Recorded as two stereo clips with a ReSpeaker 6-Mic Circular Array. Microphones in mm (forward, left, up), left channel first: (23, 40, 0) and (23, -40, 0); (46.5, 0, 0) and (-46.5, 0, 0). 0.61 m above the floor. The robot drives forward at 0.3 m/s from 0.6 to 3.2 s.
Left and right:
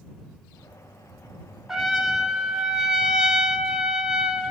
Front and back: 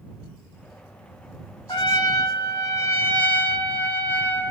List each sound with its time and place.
1.7 s a trumpet: 10° right, 0.8 m; by 4.5 s 25° right, 0.6 m